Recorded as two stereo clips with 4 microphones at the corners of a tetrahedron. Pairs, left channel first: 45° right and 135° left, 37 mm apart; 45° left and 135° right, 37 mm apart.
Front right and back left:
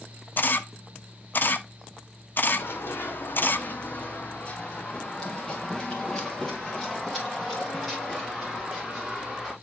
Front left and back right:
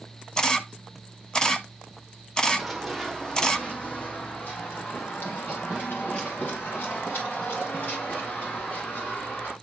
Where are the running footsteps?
40° right, 1.3 m; by 9.5 s 50° left, 4.5 m.